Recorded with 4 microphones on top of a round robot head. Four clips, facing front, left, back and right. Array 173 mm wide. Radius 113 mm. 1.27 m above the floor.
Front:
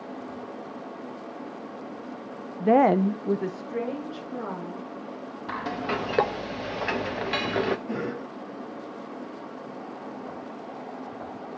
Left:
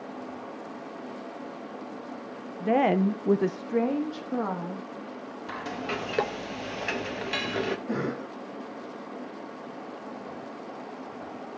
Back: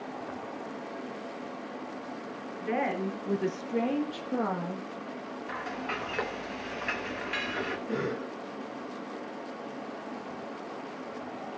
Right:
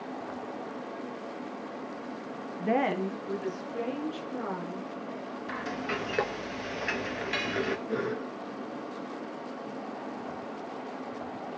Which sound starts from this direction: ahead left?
A cough, at 7.9 s.